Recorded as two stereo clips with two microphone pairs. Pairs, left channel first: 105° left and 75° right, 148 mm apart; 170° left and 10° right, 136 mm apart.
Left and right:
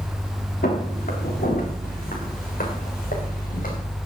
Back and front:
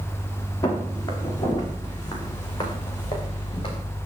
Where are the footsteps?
105° left, 6.5 m; by 3.8 s 115° left, 8 m.